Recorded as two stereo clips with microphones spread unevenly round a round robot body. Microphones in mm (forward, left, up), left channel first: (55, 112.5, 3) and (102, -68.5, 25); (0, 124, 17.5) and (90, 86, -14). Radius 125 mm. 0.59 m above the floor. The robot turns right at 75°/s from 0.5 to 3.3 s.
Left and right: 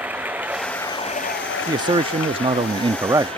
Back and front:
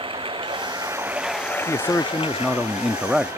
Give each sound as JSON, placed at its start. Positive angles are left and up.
{"t": 0.0, "sound": "running water", "azimuth_deg": 5}
{"t": 1.7, "sound": "a man speaking", "azimuth_deg": -130}